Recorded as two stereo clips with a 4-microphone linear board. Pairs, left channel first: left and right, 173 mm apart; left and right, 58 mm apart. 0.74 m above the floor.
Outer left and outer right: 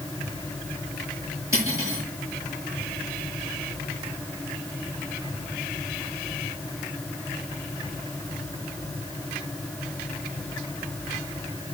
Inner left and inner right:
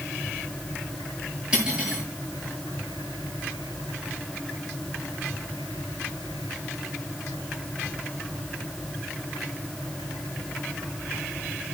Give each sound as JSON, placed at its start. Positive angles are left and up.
{"t": 1.5, "sound": "cutlery clinking", "side_deg": -15, "distance_m": 7.5}